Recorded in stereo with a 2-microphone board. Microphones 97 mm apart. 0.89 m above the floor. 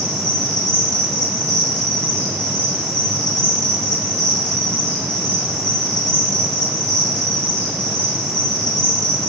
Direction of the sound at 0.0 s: 50° left (ahead or behind).